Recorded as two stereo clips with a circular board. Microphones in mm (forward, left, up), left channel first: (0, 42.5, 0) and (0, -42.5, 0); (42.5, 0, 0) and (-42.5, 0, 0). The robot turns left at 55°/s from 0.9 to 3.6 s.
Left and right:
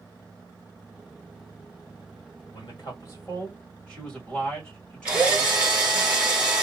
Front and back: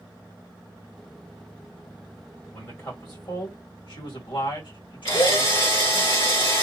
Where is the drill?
15° right, 1.8 m.